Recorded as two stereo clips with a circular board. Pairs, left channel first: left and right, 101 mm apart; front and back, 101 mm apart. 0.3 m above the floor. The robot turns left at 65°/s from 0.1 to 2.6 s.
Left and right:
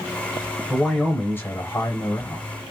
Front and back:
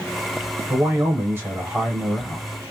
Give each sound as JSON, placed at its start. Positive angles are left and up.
{"t": 0.7, "sound": "a man speaking", "azimuth_deg": 180, "distance_m": 1.0}